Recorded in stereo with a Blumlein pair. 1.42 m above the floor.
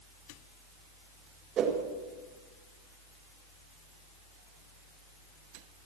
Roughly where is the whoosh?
Ahead right.